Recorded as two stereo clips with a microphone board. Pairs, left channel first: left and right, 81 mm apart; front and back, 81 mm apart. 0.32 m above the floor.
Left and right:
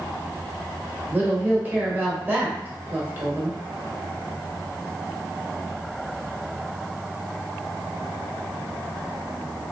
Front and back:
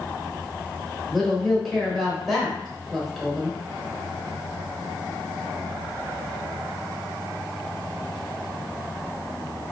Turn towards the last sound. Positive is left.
turn(degrees=-90)